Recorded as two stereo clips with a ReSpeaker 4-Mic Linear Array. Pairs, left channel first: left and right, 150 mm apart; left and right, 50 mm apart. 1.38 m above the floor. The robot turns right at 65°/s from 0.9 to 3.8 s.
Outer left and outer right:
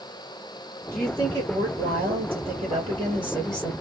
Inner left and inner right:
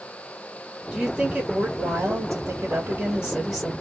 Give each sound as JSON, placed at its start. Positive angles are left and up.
{"t": 0.9, "sound": "a woman speaking", "azimuth_deg": 175, "distance_m": 2.0}